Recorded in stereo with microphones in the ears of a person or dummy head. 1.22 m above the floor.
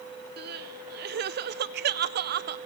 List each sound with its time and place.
0.4 s crying: 50° right (ahead or behind), 0.5 m